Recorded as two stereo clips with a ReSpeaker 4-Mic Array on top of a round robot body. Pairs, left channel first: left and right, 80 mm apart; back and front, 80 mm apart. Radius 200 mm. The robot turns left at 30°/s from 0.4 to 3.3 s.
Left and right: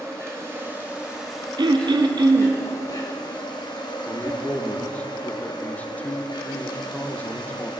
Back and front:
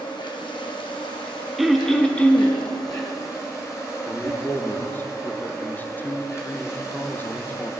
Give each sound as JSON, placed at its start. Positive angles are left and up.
{"t": 0.0, "sound": "an insect", "azimuth_deg": -150, "distance_m": 1.4}
{"t": 1.6, "sound": "throat clearing", "azimuth_deg": -85, "distance_m": 0.8}
{"t": 4.1, "sound": "a man speaking", "azimuth_deg": 140, "distance_m": 0.7}